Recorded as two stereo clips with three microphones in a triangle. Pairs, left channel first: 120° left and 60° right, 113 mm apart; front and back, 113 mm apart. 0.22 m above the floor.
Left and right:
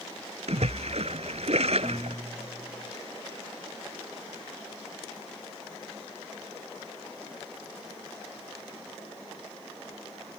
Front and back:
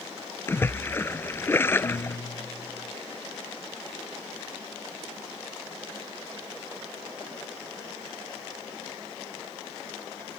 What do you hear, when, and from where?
0.5 s a splash: 65° right
1.8 s a guitar: 35° left